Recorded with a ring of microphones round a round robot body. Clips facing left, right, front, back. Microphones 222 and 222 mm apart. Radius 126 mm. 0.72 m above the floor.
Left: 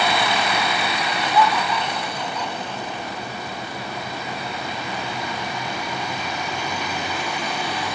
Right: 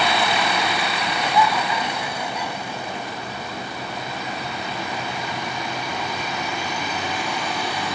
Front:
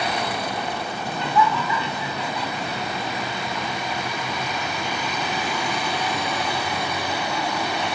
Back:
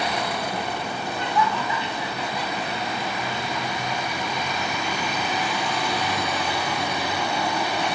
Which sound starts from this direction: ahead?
Laughter, at 1.1 s.